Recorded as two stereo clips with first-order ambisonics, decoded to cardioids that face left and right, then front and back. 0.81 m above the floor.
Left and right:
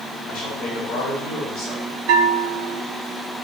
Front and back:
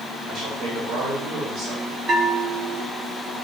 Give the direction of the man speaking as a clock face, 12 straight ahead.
7 o'clock.